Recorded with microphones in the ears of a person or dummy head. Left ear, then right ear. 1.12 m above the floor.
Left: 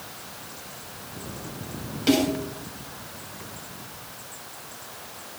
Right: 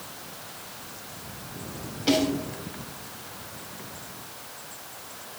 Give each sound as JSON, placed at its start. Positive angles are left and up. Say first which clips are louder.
{"t": 2.1, "sound": "a snare drum", "louder": "left 1 dB", "side_deg": 25, "distance_m": 8.0}